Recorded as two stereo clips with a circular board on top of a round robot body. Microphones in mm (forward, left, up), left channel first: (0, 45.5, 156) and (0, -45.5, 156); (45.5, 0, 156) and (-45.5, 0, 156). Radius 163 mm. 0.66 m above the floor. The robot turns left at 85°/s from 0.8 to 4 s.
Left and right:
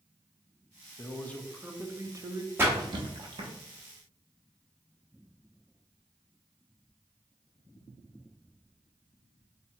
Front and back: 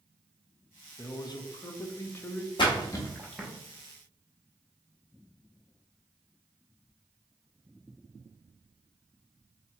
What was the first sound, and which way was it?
A man speaking, 45° left.